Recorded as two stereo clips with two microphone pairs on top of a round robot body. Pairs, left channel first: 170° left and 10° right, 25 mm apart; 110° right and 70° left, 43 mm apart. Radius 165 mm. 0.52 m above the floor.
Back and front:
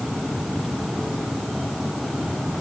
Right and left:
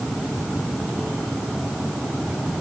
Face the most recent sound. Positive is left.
No sound to turn to.